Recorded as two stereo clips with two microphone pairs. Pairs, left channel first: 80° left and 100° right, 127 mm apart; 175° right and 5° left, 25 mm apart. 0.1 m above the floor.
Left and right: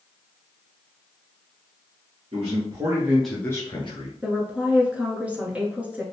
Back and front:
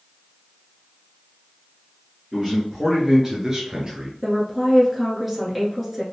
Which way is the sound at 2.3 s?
80° right.